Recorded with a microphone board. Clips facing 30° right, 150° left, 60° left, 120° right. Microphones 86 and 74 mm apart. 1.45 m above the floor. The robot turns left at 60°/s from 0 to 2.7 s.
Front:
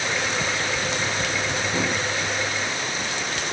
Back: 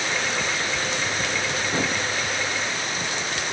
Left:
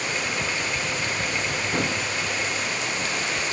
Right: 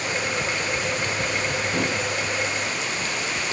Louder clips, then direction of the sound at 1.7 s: Even, left 1 dB; 110° left.